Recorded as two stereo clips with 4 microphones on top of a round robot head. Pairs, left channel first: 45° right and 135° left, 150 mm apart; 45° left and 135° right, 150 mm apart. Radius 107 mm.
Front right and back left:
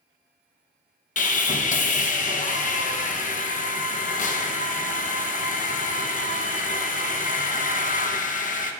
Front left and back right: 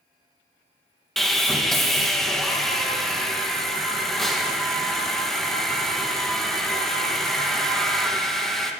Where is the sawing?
40° right, 0.8 m.